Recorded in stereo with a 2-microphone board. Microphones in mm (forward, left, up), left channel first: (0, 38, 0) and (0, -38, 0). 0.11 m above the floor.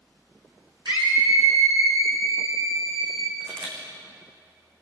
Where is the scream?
75° right (ahead or behind), 5.5 m.